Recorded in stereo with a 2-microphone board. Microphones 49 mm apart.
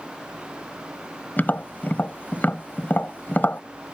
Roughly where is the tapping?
Left.